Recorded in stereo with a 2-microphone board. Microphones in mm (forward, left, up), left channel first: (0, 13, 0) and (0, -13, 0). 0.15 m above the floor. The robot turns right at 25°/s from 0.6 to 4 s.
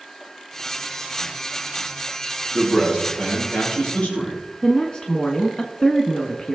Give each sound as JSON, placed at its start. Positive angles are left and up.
{"t": 2.5, "sound": "a man speaking", "azimuth_deg": 15, "distance_m": 5.5}
{"t": 4.6, "sound": "a woman speaking", "side_deg": 30, "distance_m": 1.2}